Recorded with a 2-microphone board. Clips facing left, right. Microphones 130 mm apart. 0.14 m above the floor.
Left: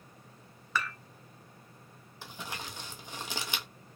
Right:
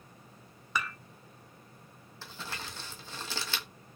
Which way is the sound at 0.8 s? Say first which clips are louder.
Left 1 dB; 15° right (ahead or behind).